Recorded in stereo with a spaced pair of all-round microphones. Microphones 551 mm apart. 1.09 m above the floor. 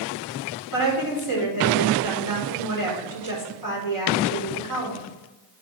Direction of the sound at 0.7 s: 35° left (ahead or behind).